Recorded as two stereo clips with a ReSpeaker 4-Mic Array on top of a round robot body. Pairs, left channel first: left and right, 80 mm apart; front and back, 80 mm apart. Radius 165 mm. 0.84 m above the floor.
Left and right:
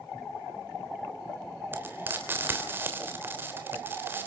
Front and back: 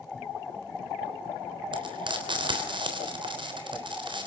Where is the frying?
155° right, 3.5 m.